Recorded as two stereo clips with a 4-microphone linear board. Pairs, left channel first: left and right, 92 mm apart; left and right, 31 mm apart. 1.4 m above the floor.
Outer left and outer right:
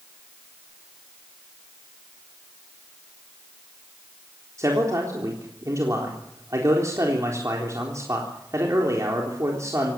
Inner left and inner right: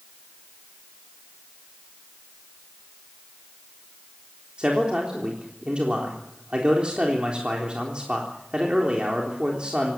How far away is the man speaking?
About 3.5 m.